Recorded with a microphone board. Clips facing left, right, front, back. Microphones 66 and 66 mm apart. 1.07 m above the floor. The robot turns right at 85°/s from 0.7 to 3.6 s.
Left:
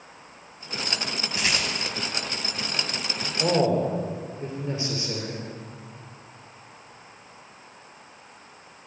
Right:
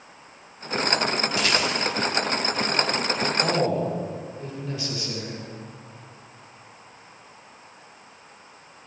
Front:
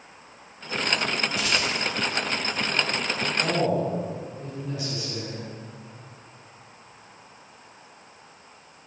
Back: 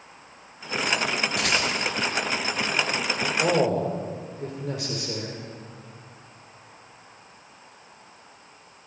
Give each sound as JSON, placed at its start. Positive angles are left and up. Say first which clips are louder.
{"t": 1.4, "sound": "a rattle", "louder": "right 2 dB, back 2 dB", "azimuth_deg": 155, "distance_m": 5.0}
{"t": 3.4, "sound": "a man speaking", "louder": "left 4 dB, back 2 dB", "azimuth_deg": 135, "distance_m": 3.0}